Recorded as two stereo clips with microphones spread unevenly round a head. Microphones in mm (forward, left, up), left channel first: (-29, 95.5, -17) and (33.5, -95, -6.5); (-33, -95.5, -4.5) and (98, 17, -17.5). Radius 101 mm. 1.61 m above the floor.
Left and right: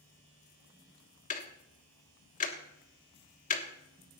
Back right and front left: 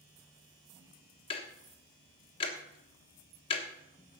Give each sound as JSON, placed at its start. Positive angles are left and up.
{"t": 1.3, "sound": "ticking", "azimuth_deg": 160, "distance_m": 1.3}